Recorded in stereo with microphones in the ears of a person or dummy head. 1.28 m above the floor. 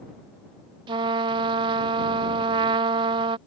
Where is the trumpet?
25° right (ahead or behind).